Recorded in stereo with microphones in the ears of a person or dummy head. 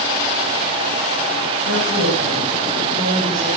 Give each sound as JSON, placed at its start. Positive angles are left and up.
{"t": 1.7, "sound": "a woman speaking", "side_deg": -35, "distance_m": 6.0}